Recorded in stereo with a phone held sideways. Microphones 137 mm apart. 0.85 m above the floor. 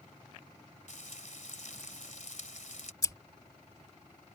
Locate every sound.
0.9 s frying: 65° left (ahead or behind)
3.0 s scissors: 25° left (ahead or behind)